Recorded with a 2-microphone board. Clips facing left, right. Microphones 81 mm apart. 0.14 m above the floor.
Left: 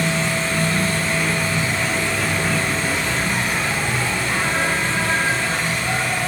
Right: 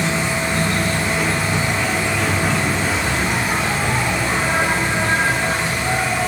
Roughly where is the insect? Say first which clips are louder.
Right 1 dB; right.